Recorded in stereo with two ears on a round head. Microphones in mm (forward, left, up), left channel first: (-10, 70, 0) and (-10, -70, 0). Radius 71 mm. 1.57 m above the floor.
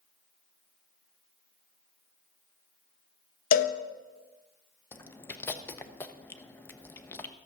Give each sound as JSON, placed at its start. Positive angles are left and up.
{"t": 3.5, "sound": "a cowbell", "side_deg": 60, "distance_m": 0.7}
{"t": 4.9, "sound": "chewing", "side_deg": 15, "distance_m": 0.8}